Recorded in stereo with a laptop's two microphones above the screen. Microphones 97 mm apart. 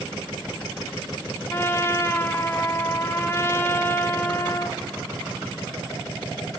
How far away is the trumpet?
About 0.6 m.